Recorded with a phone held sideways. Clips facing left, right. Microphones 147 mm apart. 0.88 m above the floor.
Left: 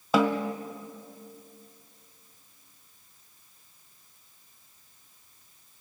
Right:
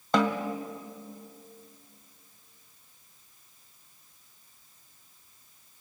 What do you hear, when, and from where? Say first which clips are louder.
0.1 s a snare drum: left 2 dB; 5° left (ahead or behind), 1.3 m